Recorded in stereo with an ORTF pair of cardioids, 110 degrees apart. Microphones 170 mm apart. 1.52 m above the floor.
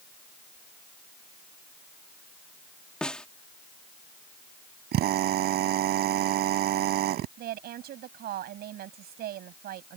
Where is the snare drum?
5° left.